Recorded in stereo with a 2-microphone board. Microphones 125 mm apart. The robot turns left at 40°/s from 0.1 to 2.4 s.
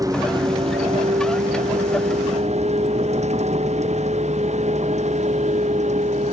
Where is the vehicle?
30° right (ahead or behind); by 6.3 s 70° right (ahead or behind).